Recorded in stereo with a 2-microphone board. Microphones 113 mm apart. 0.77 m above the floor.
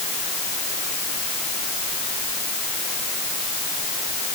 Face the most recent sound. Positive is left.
No sound to turn to.